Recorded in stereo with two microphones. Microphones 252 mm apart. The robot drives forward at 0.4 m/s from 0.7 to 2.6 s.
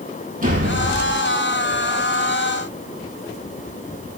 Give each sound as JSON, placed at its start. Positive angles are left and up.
{"t": 0.4, "sound": "a door slam", "side_deg": -35, "distance_m": 9.0}